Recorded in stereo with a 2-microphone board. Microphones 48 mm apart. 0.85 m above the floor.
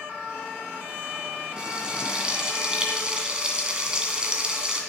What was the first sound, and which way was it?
Frying, 20° right (ahead or behind).